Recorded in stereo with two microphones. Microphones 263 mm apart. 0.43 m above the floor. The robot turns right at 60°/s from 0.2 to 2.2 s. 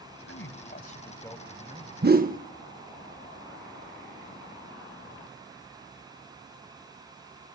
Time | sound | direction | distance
0.3 | a man speaking | 110° left | 2.5 m
2.0 | a whoosh | 40° right (ahead or behind) | 0.6 m